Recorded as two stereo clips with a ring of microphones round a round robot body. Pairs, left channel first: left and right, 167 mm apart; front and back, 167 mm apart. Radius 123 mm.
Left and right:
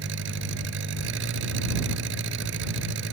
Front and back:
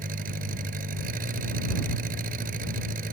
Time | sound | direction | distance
0.0 | an engine running | 125° right | ?